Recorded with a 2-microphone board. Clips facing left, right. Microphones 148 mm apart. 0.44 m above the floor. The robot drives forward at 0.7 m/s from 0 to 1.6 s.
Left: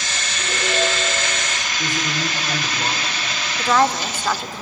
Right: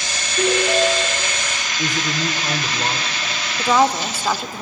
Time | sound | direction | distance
0.4 | a ringtone | 70° right (ahead or behind) | 5.5 m
1.8 | a man speaking | 20° right (ahead or behind) | 1.5 m
3.6 | a woman speaking | 10° right (ahead or behind) | 0.8 m